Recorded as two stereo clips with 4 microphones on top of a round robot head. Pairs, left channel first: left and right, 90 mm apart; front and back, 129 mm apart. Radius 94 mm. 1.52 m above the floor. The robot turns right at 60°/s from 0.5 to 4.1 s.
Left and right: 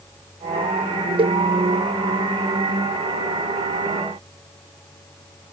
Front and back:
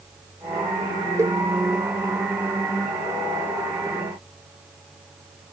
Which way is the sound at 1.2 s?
110° right.